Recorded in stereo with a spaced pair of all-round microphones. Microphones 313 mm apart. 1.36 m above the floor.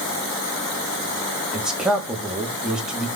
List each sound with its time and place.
1.5 s a man speaking: centre (ahead or behind), 3.5 m